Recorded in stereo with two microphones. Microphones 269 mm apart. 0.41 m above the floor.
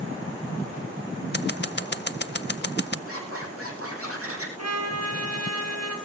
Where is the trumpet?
80° right, 4.5 m.